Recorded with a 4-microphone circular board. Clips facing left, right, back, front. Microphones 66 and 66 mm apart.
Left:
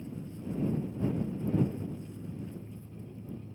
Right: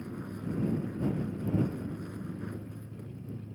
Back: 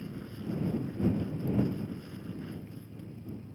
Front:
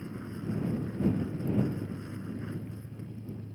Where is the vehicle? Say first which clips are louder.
Right 2 dB, front 2 dB; 65° right.